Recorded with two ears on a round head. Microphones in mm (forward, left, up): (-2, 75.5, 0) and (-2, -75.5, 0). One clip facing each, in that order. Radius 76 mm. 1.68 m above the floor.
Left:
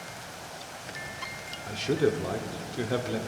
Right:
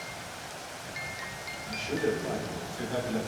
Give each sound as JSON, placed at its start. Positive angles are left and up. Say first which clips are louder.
{"t": 1.7, "sound": "a man speaking", "louder": "left 4 dB", "side_deg": 70, "distance_m": 0.9}